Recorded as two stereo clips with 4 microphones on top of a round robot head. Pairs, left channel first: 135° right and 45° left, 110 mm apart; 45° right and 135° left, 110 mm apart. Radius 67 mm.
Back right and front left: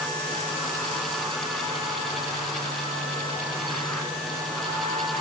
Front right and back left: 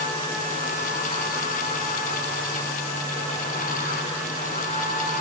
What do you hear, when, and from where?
Only background noise.